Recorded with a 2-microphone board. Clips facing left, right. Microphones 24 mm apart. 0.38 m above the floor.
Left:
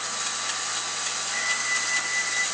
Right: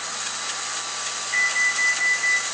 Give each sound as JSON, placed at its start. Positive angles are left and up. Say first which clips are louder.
{"t": 1.3, "sound": "an alarm", "louder": "right 7 dB", "side_deg": -35, "distance_m": 3.0}